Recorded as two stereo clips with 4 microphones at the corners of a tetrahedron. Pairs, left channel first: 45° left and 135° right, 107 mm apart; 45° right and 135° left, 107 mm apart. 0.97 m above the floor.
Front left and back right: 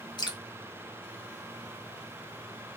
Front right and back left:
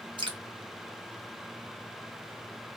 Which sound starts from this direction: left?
Dripping, at 0.2 s.